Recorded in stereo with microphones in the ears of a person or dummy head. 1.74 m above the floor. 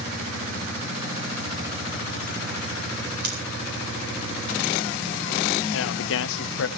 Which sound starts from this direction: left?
A man speaking, at 5.7 s.